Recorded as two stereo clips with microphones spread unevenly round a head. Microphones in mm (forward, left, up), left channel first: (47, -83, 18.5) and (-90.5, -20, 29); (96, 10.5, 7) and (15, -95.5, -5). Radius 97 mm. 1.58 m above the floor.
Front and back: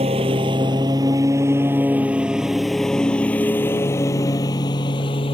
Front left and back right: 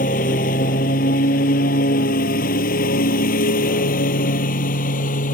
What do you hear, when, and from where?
0.0 s a lawn mower: 95° left; by 5.3 s 40° left